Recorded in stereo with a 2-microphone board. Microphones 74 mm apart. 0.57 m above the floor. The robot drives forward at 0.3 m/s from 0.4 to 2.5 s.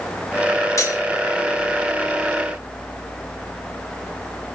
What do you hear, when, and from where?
0.8 s cutlery clinking: 45° left (ahead or behind), 1.4 m; by 1.0 s 40° left (ahead or behind), 1.4 m